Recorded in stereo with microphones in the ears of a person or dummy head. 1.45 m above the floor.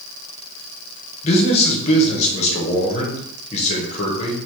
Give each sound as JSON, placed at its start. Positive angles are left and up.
{"t": 1.2, "sound": "a man speaking", "side_deg": 35, "distance_m": 1.0}